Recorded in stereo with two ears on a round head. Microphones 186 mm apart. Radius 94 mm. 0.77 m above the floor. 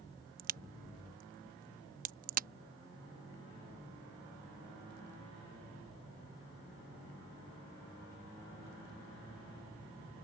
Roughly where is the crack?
Right.